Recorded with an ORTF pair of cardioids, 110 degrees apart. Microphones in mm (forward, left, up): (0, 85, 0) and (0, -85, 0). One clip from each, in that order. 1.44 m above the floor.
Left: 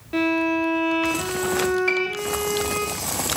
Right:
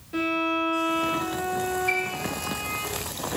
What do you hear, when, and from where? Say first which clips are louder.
0.1 s a violin: left 4 dB; 50° left, 3.5 m
1.9 s a piano: left 3 dB; 50° left, 2.5 m